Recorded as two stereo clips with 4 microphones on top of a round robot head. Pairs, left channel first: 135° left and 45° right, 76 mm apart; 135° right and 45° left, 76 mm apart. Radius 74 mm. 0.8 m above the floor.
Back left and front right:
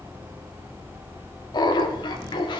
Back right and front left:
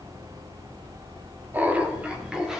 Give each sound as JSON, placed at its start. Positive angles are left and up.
{"t": 1.5, "sound": "laughter", "azimuth_deg": 110, "distance_m": 1.8}